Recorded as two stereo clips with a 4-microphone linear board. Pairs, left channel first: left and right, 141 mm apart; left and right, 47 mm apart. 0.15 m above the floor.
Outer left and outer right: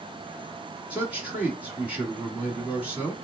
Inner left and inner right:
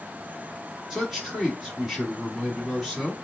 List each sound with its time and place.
0.9 s a man speaking: 10° right (ahead or behind), 1.9 m